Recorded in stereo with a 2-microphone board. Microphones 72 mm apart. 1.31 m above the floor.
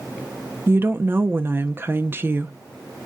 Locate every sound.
0.7 s a woman speaking: 30° right (ahead or behind), 0.6 m